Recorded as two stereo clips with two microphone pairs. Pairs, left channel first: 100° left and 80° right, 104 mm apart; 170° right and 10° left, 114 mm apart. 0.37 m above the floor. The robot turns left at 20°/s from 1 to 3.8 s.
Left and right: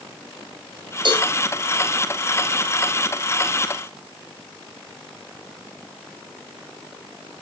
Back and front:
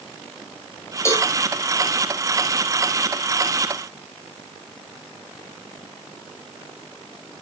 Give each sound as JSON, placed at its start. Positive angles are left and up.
{"t": 1.1, "sound": "a cowbell", "azimuth_deg": -105, "distance_m": 2.5}